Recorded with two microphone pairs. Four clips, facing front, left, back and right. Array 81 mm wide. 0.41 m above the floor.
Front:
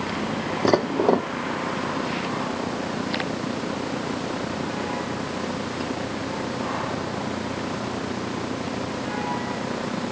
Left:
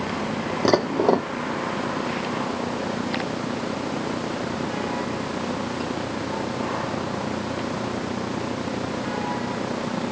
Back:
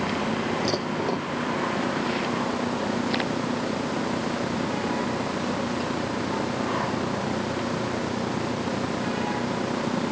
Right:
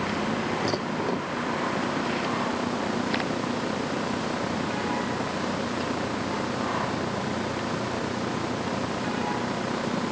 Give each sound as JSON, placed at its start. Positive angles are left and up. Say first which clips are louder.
{"t": 0.7, "sound": "dishes clattering", "louder": "left 8 dB, front 7 dB", "azimuth_deg": 50}